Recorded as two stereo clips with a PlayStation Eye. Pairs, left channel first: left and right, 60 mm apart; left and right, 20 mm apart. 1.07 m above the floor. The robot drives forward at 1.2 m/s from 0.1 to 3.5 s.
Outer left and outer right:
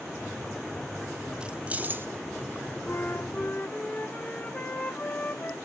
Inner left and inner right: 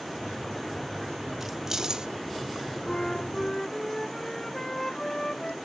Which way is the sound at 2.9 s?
45° left (ahead or behind).